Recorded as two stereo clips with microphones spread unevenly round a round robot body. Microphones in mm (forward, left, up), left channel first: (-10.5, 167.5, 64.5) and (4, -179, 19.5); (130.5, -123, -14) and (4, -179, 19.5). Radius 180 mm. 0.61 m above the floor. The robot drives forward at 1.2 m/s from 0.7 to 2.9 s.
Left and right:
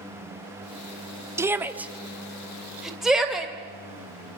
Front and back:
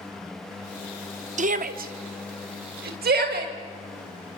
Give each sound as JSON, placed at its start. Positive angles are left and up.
{"t": 1.4, "sound": "a shout", "azimuth_deg": -155, "distance_m": 0.9}